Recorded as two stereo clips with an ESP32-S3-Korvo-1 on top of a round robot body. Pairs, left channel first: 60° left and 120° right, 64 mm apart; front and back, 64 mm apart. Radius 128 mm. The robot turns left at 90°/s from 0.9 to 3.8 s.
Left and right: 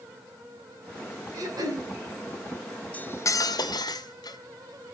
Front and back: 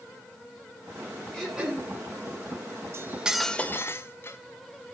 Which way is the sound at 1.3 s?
80° right.